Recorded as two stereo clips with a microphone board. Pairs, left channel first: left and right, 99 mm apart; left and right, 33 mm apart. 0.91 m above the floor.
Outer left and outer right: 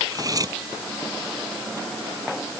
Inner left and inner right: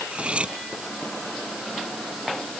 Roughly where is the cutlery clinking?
Right.